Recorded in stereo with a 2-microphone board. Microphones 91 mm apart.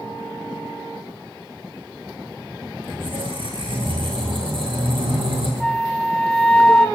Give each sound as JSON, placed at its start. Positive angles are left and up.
{"t": 2.8, "sound": "a squeak", "side_deg": -70, "distance_m": 8.5}
{"t": 5.6, "sound": "a flute", "side_deg": 5, "distance_m": 1.1}